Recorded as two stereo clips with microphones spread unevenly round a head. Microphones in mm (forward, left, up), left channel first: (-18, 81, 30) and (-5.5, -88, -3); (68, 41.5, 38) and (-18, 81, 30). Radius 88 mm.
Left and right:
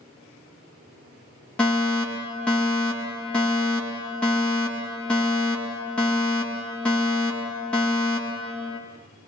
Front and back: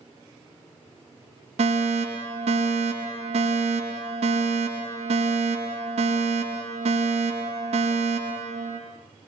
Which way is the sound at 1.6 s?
Straight behind.